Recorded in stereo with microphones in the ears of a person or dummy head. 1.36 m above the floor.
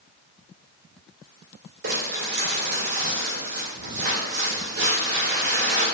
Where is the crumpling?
55° right (ahead or behind), 1.8 m.